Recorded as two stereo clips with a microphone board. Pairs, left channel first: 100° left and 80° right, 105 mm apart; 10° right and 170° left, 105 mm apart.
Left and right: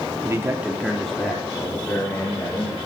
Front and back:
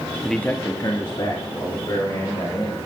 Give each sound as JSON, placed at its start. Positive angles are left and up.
{"t": 0.2, "sound": "a man speaking", "azimuth_deg": -100, "distance_m": 0.9}